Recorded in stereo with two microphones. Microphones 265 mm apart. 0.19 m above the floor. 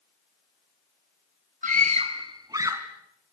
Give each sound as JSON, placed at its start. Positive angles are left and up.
{"t": 1.6, "sound": "a scream", "side_deg": -30, "distance_m": 1.1}